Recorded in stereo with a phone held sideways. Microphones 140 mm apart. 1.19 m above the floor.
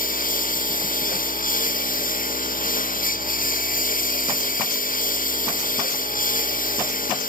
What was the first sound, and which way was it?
A lawn mower, 90° left.